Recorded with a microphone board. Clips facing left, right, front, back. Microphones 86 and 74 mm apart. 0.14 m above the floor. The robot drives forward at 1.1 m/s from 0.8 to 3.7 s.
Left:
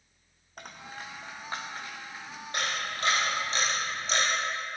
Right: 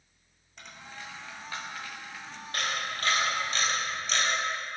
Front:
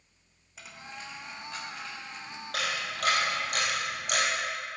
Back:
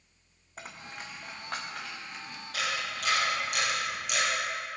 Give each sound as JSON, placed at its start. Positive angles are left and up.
{"t": 0.6, "sound": "a dropped coin", "azimuth_deg": 130, "distance_m": 1.4}
{"t": 2.5, "sound": "a camera shutter", "azimuth_deg": 25, "distance_m": 4.5}